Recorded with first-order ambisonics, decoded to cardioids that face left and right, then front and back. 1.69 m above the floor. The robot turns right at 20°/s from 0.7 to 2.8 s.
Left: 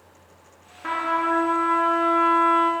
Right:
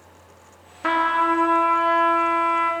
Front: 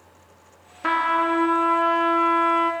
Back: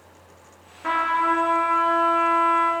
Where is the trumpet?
45° right, 1.3 m; by 2.7 s 5° right, 1.3 m.